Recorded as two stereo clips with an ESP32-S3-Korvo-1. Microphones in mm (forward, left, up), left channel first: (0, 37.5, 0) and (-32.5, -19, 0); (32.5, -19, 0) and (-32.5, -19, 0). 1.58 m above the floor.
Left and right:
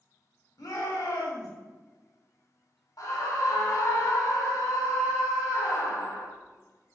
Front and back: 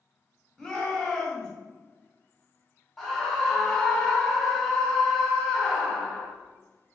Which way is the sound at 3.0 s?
85° left.